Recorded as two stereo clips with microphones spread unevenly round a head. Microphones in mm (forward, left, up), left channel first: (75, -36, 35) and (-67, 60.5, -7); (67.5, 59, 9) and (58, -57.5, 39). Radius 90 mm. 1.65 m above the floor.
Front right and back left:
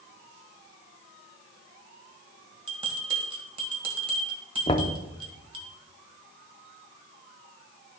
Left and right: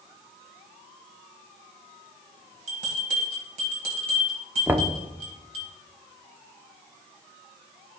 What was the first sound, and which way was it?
A bell, 150° right.